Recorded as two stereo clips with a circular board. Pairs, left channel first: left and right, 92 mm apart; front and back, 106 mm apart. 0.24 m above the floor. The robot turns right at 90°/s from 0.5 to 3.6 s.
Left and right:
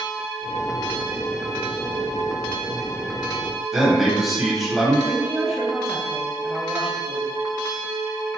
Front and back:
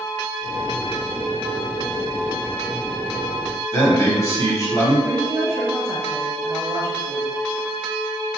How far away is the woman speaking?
About 0.9 m.